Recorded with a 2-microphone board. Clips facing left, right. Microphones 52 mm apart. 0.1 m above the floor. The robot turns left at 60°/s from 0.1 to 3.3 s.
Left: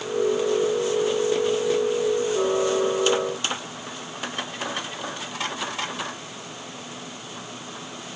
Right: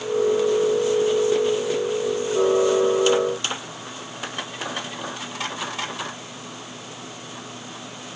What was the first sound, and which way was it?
Only background noise.